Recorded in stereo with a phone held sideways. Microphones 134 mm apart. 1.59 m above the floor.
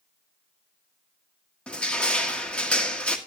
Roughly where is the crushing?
Centre.